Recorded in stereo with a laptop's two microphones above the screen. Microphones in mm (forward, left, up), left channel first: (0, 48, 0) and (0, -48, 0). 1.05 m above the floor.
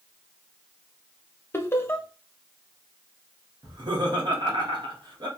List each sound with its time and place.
1.5 s laughter: 25° left (ahead or behind), 0.8 m
3.6 s laughter: 50° right (ahead or behind), 1.5 m